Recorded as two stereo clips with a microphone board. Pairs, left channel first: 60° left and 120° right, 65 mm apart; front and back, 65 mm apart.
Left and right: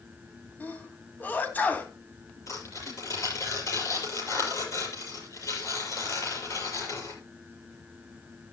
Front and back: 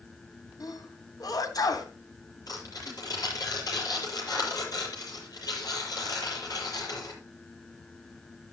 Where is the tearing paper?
25° left, 7 m.